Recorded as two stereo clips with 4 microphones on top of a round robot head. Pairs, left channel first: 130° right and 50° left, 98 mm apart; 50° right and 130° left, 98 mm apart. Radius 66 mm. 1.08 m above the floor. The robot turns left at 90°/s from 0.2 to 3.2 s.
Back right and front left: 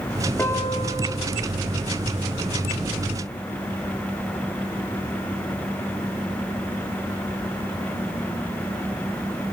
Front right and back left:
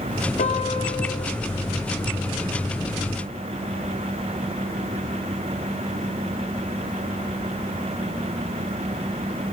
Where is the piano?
55° right, 1.6 m; by 1.0 s 105° right, 1.6 m.